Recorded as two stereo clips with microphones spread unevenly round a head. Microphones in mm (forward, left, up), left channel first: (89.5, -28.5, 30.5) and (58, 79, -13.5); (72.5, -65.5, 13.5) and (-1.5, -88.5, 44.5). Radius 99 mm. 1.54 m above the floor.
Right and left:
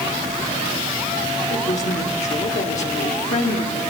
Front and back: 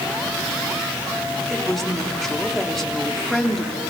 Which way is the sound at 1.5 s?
75° right.